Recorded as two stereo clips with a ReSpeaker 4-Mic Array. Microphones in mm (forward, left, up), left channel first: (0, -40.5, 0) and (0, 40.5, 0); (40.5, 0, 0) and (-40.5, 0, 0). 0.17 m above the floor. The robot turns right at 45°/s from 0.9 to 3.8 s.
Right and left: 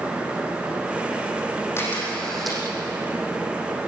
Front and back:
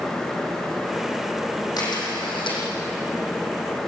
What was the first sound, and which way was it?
A camera shutter, 30° right.